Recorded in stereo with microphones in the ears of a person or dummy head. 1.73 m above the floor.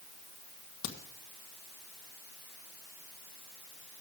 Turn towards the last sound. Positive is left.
turn(degrees=75)  # may be behind; listen again after turning